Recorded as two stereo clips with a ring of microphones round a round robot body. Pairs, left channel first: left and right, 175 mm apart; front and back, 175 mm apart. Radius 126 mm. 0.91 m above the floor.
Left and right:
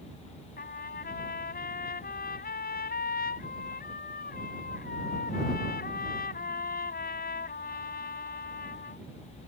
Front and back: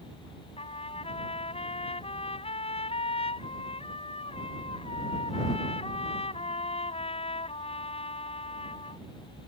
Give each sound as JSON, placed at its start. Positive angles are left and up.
{"t": 0.6, "sound": "a trumpet", "azimuth_deg": 55}